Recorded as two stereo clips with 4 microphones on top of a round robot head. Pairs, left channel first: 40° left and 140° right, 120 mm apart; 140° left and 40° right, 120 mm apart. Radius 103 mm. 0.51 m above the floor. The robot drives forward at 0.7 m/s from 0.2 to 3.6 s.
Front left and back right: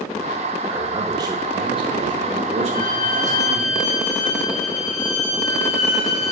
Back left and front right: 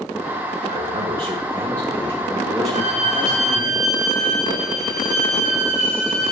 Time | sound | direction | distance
0.7 | a man speaking | 75° right | 1.5 m
2.7 | a violin | straight ahead | 3 m